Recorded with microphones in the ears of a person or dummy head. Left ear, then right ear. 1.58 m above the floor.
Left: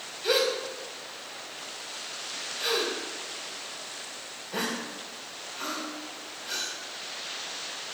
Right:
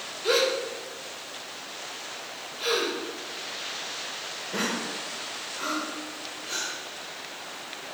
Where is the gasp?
10° left (ahead or behind), 3.5 m.